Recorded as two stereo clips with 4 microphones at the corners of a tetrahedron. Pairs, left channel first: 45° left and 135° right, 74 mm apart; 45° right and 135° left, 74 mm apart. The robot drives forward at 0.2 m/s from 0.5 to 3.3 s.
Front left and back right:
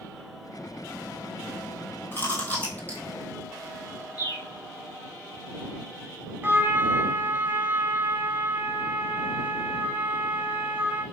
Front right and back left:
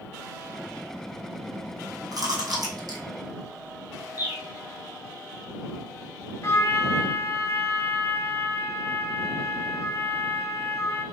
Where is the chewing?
105° left, 1.6 m; by 3.0 s 115° left, 1.6 m.